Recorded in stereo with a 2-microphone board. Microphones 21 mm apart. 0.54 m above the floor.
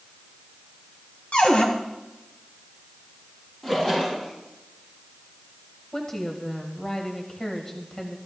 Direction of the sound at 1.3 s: 65° left (ahead or behind).